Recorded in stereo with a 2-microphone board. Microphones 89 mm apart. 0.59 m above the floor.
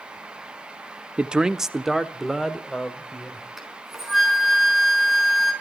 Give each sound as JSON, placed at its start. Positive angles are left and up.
{"t": 1.2, "sound": "a man speaking", "side_deg": -10, "distance_m": 0.6}
{"t": 3.6, "sound": "a flute", "side_deg": -5, "distance_m": 4.5}